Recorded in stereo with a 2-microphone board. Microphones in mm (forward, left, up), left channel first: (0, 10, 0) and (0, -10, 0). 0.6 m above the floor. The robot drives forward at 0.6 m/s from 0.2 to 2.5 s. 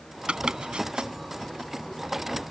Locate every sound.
0.3 s chopping: 60° right (ahead or behind); by 1.1 s 70° right (ahead or behind)